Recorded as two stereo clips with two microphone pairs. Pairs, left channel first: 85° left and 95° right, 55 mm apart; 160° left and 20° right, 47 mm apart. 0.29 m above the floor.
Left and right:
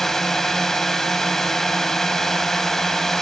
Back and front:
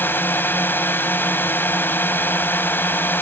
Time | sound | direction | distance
0.0 | a drone | 165° left | ?